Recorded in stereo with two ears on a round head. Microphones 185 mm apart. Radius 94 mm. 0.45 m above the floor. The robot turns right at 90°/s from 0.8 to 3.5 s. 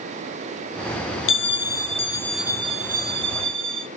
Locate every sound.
1.3 s a bell: 85° left, 0.5 m; by 3.9 s 75° right, 0.5 m